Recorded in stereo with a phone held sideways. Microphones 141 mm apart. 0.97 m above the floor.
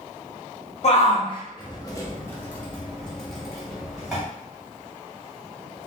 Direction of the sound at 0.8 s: 50° left (ahead or behind).